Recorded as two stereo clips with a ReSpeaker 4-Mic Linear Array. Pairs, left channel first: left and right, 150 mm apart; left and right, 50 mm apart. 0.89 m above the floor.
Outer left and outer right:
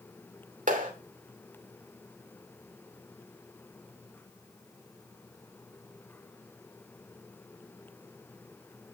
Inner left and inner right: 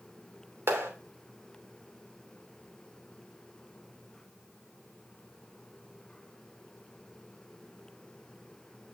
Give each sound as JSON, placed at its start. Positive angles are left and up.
{"t": 0.7, "sound": "a clap", "side_deg": -65, "distance_m": 3.0}